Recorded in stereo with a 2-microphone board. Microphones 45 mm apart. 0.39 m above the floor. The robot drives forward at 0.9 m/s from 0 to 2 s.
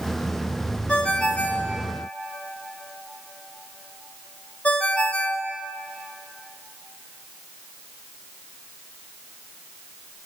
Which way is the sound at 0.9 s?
25° left (ahead or behind).